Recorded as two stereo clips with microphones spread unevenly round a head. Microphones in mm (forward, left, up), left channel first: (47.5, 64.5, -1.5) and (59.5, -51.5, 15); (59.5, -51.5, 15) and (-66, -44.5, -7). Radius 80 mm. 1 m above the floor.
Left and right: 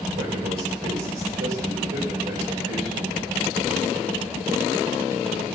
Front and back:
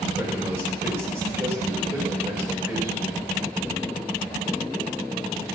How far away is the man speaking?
About 4 m.